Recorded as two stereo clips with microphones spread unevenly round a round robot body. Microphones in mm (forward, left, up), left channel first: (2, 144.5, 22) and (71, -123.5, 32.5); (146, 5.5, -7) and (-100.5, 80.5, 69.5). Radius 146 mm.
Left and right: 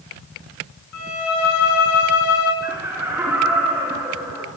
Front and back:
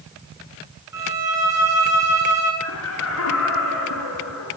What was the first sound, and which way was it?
A violin, 80° left.